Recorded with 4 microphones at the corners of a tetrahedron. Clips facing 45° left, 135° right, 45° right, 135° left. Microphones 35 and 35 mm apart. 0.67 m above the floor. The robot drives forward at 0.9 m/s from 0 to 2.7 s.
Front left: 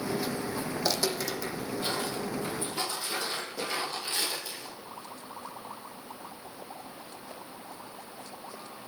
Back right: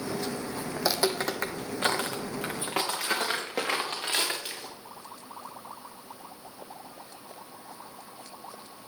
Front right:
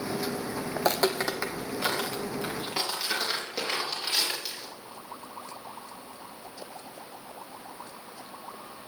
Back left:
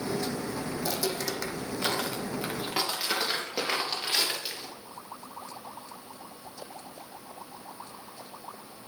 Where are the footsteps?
50° right, 1.3 m; by 4.7 s 150° right, 5 m.